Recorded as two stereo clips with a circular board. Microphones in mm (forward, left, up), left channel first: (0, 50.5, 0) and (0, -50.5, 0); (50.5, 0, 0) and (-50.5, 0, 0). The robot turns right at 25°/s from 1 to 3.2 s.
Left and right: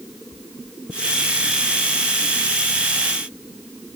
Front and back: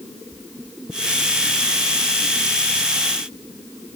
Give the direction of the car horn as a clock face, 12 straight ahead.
I don't hear a car horn.